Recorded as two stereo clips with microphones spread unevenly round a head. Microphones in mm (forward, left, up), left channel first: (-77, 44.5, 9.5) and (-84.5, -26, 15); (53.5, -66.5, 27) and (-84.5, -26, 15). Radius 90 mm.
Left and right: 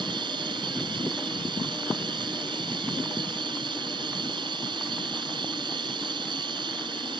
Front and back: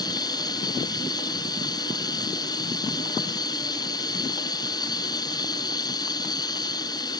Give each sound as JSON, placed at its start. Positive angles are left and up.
{"t": 0.0, "sound": "running water", "azimuth_deg": -80}